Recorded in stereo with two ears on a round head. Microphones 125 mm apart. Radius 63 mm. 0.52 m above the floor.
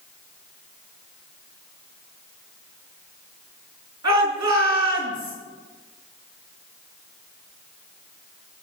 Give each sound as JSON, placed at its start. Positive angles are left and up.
{"t": 4.0, "sound": "a shout", "side_deg": -25, "distance_m": 5.5}